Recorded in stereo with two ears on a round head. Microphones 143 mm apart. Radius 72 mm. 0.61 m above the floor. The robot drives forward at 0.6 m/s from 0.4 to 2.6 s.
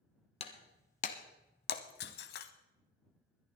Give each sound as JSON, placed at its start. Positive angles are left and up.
{"t": 0.4, "sound": "breaking glass", "side_deg": 40, "distance_m": 1.4}